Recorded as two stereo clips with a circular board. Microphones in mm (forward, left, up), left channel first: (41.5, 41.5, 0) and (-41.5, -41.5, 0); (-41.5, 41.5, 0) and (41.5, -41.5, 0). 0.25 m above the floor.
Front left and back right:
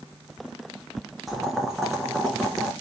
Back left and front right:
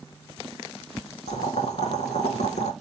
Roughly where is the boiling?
Behind left.